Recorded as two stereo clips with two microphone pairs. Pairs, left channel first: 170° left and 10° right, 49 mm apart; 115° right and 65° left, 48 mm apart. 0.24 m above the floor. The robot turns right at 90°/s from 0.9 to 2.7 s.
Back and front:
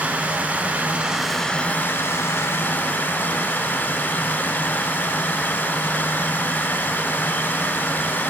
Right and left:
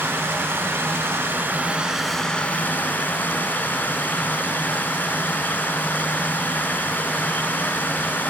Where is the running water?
50° left, 1.3 m; by 8.3 s 150° right, 1.3 m.